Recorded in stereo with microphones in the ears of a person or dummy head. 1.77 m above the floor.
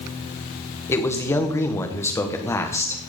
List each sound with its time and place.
0.9 s a man speaking: 15° left (ahead or behind), 1.7 m